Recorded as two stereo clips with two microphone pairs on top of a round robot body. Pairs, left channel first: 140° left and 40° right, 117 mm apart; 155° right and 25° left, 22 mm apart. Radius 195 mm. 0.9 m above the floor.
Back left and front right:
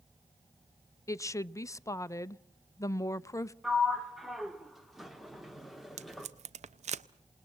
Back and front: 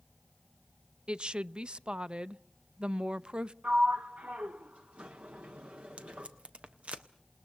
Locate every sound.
1.1 s a woman speaking: 75° left, 0.7 m
3.6 s a sliding door: 50° left, 0.7 m
6.0 s tape being pulled: 15° right, 0.6 m